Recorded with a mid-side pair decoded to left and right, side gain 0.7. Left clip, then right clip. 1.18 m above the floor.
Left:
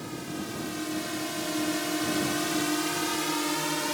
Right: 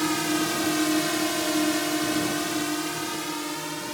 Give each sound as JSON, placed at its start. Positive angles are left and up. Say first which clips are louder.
{"t": 0.0, "sound": "a drone", "louder": "right 12 dB", "azimuth_deg": -55}